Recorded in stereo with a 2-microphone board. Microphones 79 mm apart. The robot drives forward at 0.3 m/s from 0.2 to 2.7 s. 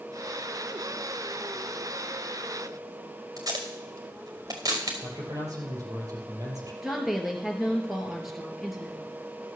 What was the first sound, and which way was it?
Tape being pulled, 55° right (ahead or behind).